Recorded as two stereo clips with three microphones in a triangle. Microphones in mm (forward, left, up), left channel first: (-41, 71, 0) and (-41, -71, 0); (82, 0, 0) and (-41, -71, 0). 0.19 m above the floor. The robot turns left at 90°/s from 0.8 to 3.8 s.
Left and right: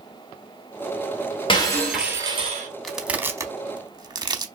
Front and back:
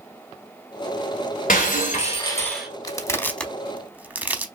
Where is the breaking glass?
40° left, 1.2 m; by 2.7 s 70° right, 1.2 m.